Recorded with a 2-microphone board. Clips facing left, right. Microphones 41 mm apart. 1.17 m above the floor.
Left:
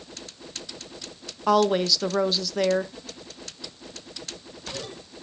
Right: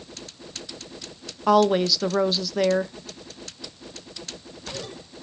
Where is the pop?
I don't hear a pop.